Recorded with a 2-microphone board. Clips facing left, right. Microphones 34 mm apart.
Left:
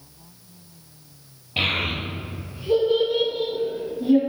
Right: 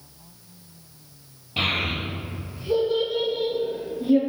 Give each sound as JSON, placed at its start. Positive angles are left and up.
{"t": 1.6, "sound": "a child speaking", "side_deg": 30, "distance_m": 1.5}